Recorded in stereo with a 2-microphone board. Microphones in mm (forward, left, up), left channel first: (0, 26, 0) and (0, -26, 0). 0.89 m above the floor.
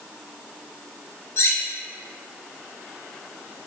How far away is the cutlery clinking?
About 0.5 m.